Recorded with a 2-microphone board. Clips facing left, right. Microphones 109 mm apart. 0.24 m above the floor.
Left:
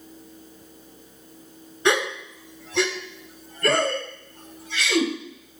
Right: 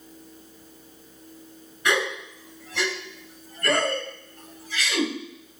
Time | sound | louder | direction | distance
1.9 | a gasp | left 3 dB | 25° left (ahead or behind) | 1.1 m